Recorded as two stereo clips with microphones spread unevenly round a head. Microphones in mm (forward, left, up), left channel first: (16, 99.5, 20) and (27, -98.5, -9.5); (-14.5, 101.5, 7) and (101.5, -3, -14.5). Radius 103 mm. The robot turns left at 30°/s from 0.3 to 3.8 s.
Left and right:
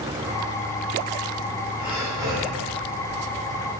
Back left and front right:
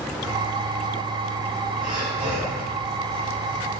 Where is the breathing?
Straight ahead, 3 m; by 2.6 s 25° right, 3 m.